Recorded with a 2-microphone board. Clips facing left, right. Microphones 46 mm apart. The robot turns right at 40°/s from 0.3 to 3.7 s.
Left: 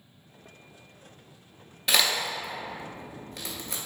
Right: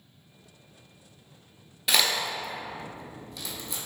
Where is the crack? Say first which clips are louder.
Even; centre (ahead or behind), 0.6 m; by 3.8 s 50° left (ahead or behind), 0.6 m.